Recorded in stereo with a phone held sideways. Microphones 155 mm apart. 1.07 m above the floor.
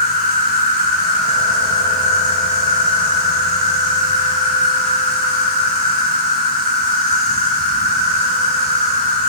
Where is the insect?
85° right, 2.5 m.